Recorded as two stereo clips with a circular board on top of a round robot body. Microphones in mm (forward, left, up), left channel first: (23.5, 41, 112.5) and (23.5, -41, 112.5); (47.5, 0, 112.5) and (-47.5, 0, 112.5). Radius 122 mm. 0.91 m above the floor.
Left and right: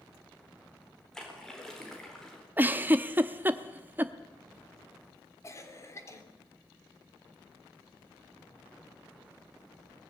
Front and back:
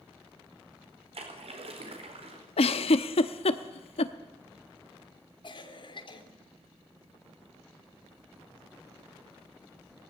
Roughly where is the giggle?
Ahead.